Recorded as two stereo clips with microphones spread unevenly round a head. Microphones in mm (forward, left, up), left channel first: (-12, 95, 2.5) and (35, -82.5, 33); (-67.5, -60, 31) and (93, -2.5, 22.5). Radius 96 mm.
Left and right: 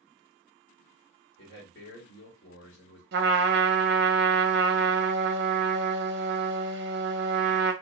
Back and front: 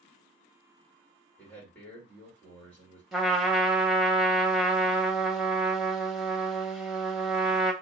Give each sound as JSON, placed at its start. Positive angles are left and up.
{"t": 1.4, "sound": "a man speaking", "azimuth_deg": 120, "distance_m": 1.6}
{"t": 3.1, "sound": "a trumpet", "azimuth_deg": -70, "distance_m": 0.6}